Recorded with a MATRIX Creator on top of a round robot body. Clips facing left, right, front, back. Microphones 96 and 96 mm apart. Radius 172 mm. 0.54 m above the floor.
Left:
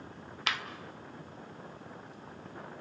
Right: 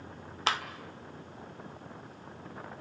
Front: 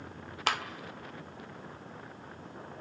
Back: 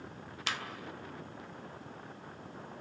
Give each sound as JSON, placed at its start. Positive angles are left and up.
{"t": 0.5, "sound": "a clap", "azimuth_deg": -35, "distance_m": 1.9}